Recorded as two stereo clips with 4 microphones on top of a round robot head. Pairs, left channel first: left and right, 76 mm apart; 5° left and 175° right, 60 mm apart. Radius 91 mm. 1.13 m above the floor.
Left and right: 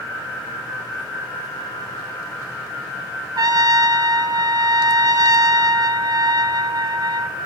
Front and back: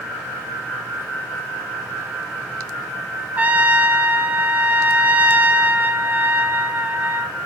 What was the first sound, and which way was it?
A trumpet, 115° right.